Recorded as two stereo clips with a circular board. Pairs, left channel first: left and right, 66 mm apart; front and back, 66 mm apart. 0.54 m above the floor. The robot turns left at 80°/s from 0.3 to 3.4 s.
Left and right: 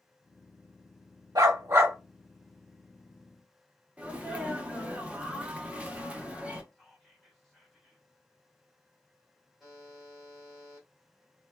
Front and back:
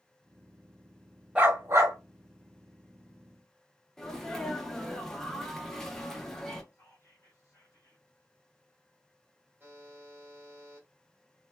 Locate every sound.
1.4 s a dog barking: 105° right, 1.0 m; by 2.0 s 155° right, 1.0 m
4.0 s a sneeze: 65° right, 0.6 m
6.7 s whispering: straight ahead, 1.5 m
9.6 s a buzzer: 175° right, 1.3 m